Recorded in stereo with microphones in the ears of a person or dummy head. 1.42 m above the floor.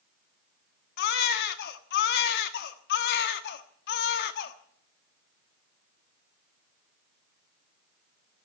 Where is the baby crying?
55° left (ahead or behind), 1.2 m.